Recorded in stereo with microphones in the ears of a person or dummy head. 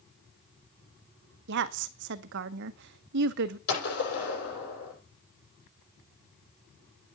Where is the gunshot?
60° left (ahead or behind), 9 m.